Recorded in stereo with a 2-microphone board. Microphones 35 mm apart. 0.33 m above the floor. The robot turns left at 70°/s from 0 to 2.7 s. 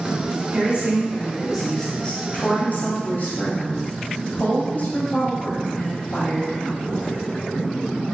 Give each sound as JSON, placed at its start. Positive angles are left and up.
{"t": 0.5, "sound": "a woman speaking", "azimuth_deg": -105, "distance_m": 1.4}